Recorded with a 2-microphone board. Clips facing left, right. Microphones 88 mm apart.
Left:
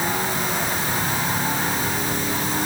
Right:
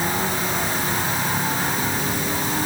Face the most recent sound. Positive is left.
No sound to turn to.